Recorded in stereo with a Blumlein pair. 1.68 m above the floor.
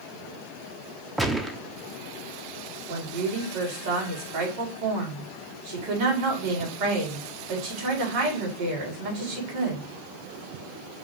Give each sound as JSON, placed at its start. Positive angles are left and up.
{"t": 1.2, "sound": "a gunshot", "azimuth_deg": -5, "distance_m": 0.7}
{"t": 2.9, "sound": "a woman speaking", "azimuth_deg": -55, "distance_m": 3.5}